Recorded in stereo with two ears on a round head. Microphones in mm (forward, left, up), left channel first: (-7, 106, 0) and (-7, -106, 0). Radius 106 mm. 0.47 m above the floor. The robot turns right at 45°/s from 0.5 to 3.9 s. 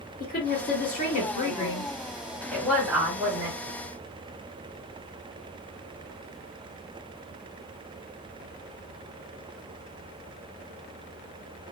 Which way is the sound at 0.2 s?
85° left.